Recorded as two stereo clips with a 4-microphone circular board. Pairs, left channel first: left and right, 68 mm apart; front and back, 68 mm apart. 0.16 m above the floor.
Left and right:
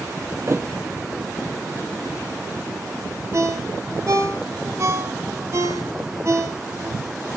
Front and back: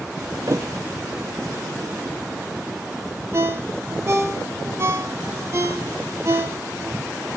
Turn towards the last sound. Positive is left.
turn(degrees=-130)